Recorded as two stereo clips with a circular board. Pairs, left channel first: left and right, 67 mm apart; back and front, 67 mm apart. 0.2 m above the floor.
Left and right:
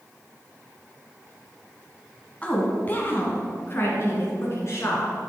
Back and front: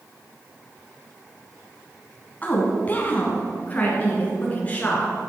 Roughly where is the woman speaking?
Behind left.